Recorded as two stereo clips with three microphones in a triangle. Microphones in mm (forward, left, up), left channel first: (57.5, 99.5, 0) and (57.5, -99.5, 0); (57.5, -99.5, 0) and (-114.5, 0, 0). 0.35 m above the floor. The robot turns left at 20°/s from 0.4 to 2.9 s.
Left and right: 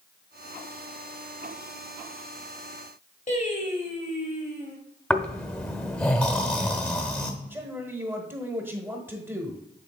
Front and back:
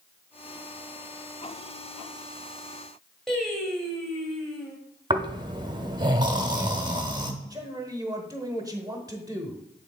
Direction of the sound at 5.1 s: 170° left.